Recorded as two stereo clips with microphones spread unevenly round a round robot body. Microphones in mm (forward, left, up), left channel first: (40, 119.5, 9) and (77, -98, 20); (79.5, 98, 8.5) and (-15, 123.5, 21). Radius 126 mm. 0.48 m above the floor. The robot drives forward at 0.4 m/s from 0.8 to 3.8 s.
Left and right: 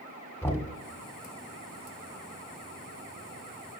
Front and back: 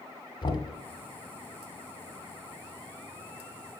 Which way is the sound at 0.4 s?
20° left.